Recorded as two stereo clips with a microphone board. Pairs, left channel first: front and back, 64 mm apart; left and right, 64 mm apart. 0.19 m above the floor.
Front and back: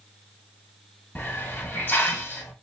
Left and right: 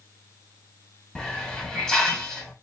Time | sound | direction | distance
1.1 | a hiss | 15° left | 1.5 m